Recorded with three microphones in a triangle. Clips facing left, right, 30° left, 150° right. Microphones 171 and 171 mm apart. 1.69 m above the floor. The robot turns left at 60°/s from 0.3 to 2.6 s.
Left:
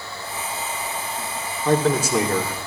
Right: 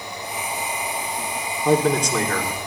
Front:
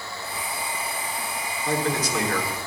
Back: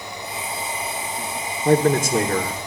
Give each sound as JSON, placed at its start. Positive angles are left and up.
{"t": 1.6, "sound": "a man speaking", "azimuth_deg": -165, "distance_m": 1.3}